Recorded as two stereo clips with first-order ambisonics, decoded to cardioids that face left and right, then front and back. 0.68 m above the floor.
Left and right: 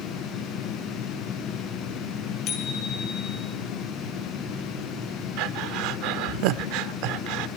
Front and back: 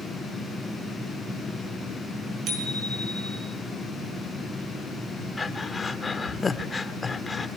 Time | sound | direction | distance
2.5 | a bicycle bell | 130° left | 5 m
5.4 | breathing | 75° right | 1.0 m